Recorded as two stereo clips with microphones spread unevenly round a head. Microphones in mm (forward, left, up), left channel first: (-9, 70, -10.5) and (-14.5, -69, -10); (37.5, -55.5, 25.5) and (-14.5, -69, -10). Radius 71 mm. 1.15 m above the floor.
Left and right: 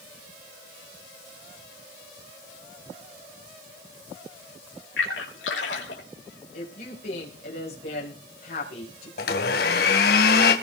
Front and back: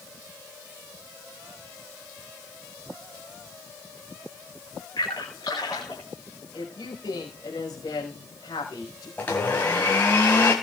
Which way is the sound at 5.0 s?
80° left.